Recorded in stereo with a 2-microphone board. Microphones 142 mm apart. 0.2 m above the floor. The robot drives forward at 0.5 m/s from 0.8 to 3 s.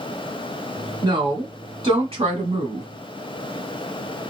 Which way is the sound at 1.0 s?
35° right (ahead or behind).